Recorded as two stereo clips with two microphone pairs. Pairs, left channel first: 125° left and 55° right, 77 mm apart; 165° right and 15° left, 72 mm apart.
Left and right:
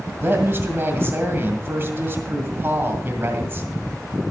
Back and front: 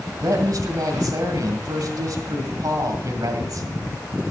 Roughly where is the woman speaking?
Ahead.